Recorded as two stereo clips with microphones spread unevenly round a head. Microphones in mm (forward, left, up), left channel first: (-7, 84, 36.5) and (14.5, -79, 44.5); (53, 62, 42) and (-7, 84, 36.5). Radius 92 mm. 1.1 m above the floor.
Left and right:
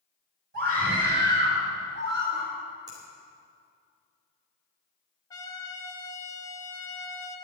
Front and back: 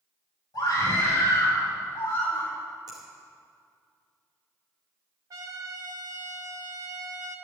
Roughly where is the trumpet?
Behind.